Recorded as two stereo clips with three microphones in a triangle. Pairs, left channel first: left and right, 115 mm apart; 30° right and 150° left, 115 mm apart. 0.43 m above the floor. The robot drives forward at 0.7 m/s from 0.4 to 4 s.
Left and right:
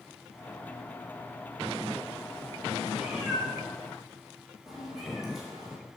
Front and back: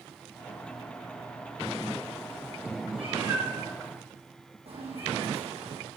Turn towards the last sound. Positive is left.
turn(degrees=-175)